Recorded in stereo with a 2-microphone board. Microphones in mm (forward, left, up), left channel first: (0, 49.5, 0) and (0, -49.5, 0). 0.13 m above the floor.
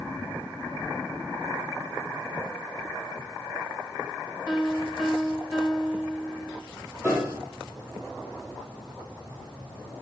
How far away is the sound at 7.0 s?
About 3 m.